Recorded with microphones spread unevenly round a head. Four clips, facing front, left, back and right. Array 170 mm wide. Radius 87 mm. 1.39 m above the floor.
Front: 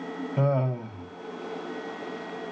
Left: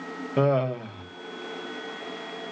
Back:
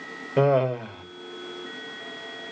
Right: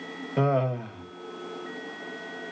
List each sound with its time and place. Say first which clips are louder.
0.4 s laughter: left 2 dB, back 6 dB; 145° left, 2 m